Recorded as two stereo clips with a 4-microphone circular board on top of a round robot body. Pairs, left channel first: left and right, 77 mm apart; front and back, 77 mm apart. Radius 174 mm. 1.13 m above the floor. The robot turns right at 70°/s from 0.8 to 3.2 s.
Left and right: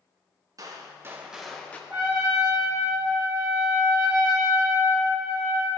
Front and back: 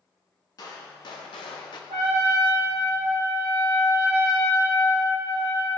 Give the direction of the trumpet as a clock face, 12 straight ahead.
6 o'clock.